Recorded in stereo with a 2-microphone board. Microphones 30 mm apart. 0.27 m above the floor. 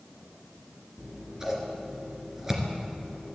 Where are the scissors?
15° right (ahead or behind), 2.0 m.